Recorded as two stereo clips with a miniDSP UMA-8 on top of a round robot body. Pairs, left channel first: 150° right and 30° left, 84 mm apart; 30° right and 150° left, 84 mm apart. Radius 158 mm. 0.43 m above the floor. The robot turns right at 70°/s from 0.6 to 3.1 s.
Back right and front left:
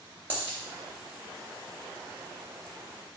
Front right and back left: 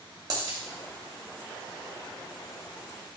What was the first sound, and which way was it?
A dropped coin, 105° left.